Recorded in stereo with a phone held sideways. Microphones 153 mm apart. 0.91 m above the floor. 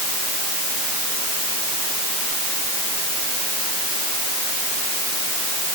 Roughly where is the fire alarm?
No fire alarm in this recording.